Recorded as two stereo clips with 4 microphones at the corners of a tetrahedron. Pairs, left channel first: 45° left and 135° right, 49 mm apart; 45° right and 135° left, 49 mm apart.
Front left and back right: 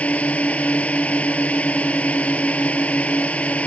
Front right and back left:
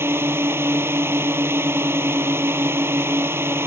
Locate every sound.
0.0 s a drone: 105° left